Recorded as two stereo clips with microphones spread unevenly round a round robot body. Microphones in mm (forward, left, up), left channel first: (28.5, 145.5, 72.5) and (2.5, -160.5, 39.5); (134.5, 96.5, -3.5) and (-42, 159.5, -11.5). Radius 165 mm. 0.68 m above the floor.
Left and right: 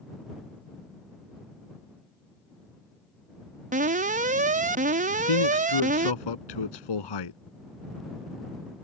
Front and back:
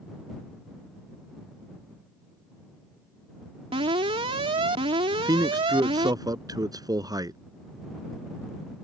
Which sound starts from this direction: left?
A man speaking, at 5.1 s.